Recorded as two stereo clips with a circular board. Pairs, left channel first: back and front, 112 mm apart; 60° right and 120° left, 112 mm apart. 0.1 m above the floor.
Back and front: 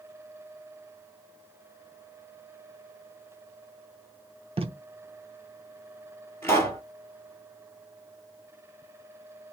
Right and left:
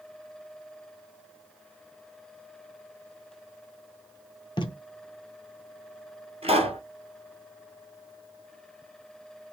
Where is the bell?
No bell in this recording.